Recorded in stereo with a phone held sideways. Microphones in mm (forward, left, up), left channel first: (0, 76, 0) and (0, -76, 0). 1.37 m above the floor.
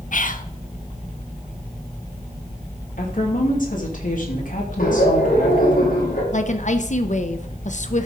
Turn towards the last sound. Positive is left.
turn(degrees=50)  # may be behind; listen again after turning